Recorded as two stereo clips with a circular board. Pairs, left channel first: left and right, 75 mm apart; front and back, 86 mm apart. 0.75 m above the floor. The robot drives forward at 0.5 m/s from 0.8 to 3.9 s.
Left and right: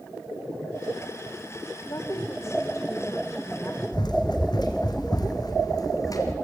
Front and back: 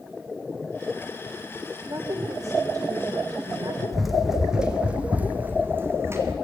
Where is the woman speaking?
130° left, 2.5 m; by 3.8 s 145° left, 3.5 m.